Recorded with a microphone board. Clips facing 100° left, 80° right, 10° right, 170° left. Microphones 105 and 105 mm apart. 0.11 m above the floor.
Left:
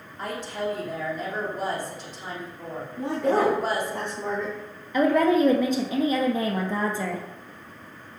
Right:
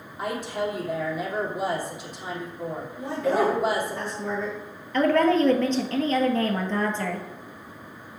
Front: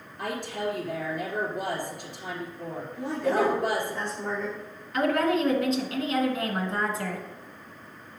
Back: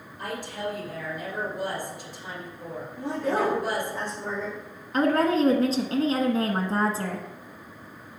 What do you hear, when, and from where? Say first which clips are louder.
0.2 s a woman speaking: right 2 dB, front 2 dB; straight ahead, 3 m
3.0 s a woman speaking: left 1 dB, front 1 dB; 90° left, 3 m
4.9 s a woman speaking: even, back 2 dB; 170° left, 1.3 m